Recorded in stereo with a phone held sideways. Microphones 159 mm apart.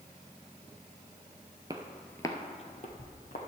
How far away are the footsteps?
About 1.0 m.